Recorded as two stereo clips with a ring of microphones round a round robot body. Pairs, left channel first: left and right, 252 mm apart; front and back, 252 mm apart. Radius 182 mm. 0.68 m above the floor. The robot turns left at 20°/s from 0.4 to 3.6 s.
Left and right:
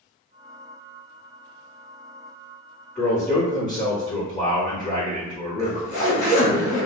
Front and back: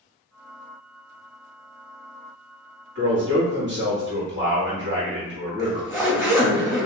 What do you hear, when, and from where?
3.0 s a man speaking: 175° left, 1.3 m; by 6.6 s 160° left, 1.3 m
5.6 s a zipper: 85° left, 1.4 m